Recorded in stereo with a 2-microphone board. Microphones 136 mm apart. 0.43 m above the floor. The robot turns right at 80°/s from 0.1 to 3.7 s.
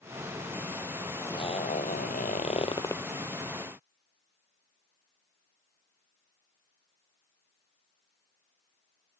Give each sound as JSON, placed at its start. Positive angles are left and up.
{"t": 1.1, "sound": "a zipper", "azimuth_deg": 15}